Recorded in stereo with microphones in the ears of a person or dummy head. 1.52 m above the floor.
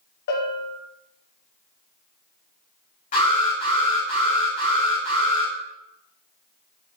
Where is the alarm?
45° left (ahead or behind), 3.5 m.